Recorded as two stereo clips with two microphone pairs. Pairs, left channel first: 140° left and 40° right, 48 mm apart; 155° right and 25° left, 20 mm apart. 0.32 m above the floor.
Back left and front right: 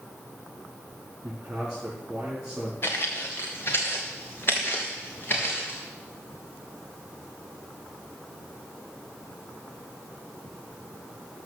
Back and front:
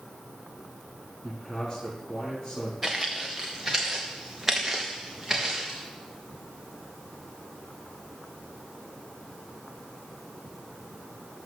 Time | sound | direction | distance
1.2 | a man speaking | 115° right | 4.5 m
2.8 | footsteps | 105° left | 2.0 m